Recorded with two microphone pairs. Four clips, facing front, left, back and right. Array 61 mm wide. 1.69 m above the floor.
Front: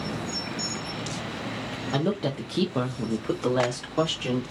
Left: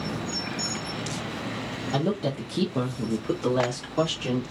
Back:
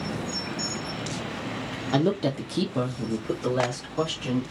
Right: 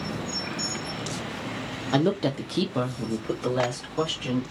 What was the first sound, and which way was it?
A woman speaking, 95° right.